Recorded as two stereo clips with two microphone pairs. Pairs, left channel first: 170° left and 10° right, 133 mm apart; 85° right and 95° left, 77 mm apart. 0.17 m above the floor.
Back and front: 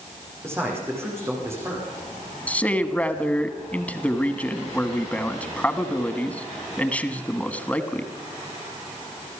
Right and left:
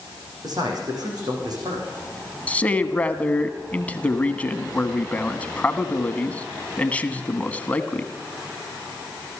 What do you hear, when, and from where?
0.4 s a man speaking: 60° left, 9 m
2.5 s a man speaking: 125° right, 1.3 m